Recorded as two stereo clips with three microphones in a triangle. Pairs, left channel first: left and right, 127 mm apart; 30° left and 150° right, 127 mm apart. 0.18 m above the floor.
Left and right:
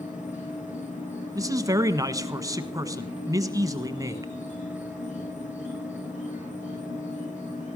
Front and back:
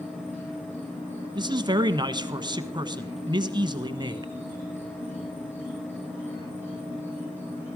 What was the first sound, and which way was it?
An insect, 105° left.